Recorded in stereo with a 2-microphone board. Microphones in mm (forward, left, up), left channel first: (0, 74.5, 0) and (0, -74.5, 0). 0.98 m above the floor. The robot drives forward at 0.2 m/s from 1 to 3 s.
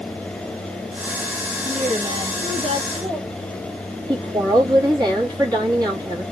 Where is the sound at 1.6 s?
45° right (ahead or behind), 1.0 m; by 3.2 s 40° right (ahead or behind), 1.1 m.